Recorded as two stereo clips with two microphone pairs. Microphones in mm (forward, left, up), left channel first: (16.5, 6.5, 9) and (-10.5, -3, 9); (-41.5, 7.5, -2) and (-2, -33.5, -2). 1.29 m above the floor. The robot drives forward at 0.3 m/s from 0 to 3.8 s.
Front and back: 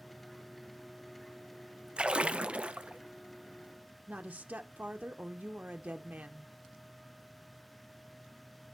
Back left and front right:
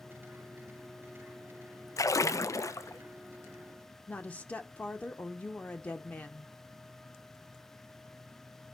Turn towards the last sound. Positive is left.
turn(degrees=-160)